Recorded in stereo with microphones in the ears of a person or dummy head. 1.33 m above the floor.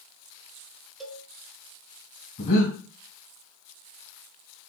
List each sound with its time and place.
1.0 s a cowbell: 5° right (ahead or behind), 0.9 m
2.4 s breathing: 50° left (ahead or behind), 2.5 m